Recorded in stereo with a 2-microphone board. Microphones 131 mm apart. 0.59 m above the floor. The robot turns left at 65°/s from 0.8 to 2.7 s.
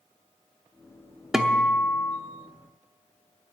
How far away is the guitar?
About 0.9 m.